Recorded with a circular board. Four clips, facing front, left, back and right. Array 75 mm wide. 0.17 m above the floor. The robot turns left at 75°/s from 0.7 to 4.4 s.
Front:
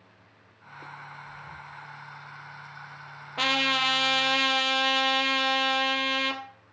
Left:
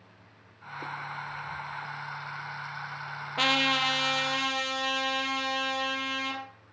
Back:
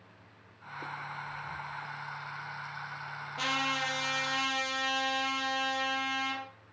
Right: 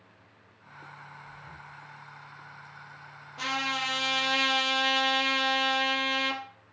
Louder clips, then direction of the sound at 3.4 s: Left 4 dB, front 6 dB; 50° left.